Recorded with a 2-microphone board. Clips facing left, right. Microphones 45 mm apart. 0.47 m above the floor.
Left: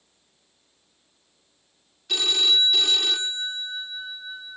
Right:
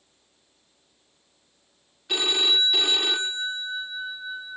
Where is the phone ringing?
20° right (ahead or behind).